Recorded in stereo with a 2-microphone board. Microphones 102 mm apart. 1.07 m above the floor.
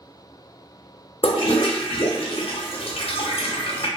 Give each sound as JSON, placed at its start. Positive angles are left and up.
{"t": 1.2, "sound": "a toilet flushing", "side_deg": 60, "distance_m": 0.7}